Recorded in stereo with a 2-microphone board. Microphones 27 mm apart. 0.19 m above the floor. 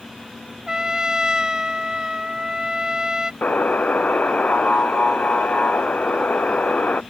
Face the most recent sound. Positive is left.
turn(degrees=65)  # may be behind; listen again after turning